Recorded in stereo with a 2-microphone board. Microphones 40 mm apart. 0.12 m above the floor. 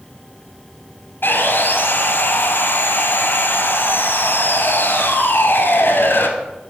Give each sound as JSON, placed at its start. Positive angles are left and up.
{"t": 1.2, "sound": "sawing", "side_deg": 60, "distance_m": 0.9}